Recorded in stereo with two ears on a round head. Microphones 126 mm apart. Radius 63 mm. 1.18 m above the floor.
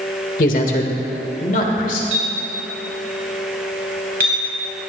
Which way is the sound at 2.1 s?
70° right (ahead or behind).